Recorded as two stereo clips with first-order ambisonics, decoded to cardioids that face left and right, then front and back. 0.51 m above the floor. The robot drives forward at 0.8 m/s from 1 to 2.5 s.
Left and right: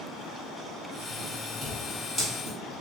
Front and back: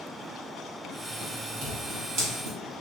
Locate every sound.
1.6 s scissors: 175° right, 1.7 m